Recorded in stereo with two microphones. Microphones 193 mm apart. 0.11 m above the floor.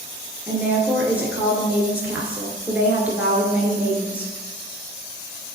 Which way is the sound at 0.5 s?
10° right (ahead or behind).